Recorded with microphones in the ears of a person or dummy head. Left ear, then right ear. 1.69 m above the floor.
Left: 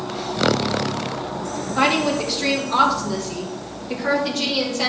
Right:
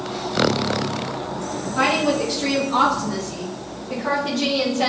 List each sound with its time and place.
1.8 s a woman speaking: 25° left (ahead or behind), 2.5 m; by 4.9 s 60° left (ahead or behind), 4 m